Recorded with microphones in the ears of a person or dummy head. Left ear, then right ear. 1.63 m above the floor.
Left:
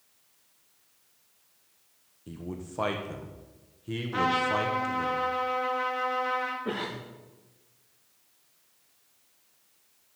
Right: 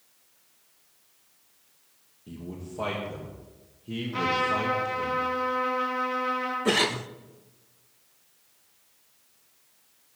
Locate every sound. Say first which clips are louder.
2.3 s a man speaking: left 1 dB; 55° left (ahead or behind), 1.0 m
4.1 s a trumpet: even; 55° left (ahead or behind), 2.5 m
6.7 s a cough: right 10 dB; 75° right (ahead or behind), 0.5 m